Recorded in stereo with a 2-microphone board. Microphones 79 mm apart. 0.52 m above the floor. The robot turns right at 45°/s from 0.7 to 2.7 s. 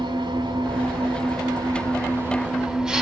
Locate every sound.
0.0 s an engine running: 100° right, 3 m; by 3.0 s 10° right, 3 m